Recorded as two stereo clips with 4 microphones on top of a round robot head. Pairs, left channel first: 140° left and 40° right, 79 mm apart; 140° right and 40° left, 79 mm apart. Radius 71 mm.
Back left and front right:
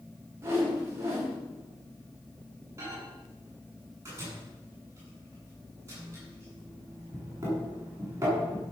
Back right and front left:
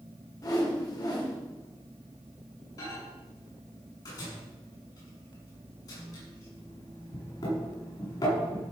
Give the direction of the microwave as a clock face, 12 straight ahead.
3 o'clock.